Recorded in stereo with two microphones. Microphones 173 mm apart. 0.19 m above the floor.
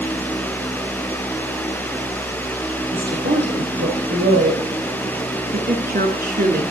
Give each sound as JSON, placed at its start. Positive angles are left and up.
{"t": 2.9, "sound": "a woman speaking", "side_deg": -75, "distance_m": 5.5}
{"t": 5.5, "sound": "a woman speaking", "side_deg": -60, "distance_m": 3.0}